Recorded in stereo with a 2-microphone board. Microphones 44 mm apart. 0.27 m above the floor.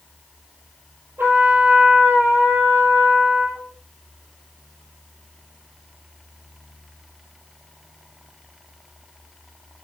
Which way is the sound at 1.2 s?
55° right (ahead or behind).